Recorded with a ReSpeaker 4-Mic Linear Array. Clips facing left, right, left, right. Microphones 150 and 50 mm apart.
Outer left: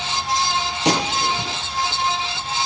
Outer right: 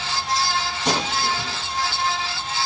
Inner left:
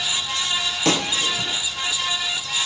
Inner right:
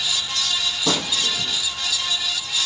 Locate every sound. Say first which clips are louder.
0.8 s a gunshot: outer left 4 dB, inner left 3 dB; 75° left (ahead or behind), 4.5 m